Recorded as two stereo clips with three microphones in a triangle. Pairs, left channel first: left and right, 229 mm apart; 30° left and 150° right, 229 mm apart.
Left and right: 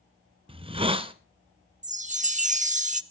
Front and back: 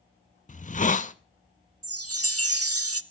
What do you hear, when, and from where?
0.5 s a hiss: 25° right, 0.6 m
1.8 s a chime: 150° right, 0.6 m